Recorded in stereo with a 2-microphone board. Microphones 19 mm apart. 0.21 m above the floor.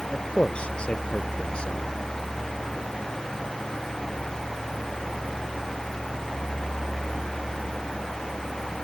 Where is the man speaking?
75° left (ahead or behind); by 1.9 s 60° left (ahead or behind).